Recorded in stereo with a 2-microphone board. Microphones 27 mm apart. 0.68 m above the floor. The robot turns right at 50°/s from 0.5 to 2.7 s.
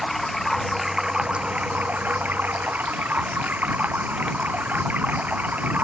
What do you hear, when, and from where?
0.0 s running water: 175° left; by 5.8 s 75° right